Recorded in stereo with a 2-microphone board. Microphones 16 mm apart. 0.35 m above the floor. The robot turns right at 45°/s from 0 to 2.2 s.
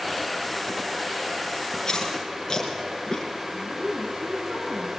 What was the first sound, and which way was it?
Chewing, 40° left (ahead or behind).